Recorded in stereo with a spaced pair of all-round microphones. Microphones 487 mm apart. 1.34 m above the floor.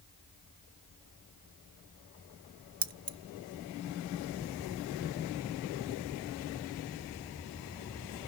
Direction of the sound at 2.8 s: 45° right (ahead or behind).